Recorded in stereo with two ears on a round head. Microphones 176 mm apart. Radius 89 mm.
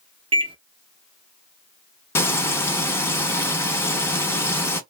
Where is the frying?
10° left (ahead or behind), 0.6 m.